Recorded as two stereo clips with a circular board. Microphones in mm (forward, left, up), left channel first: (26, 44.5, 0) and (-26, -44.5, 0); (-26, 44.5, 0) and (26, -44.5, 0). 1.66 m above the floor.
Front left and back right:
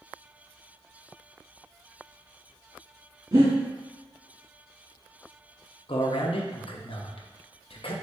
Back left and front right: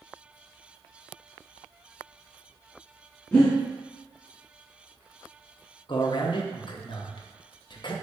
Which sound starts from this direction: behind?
Breathing, at 3.3 s.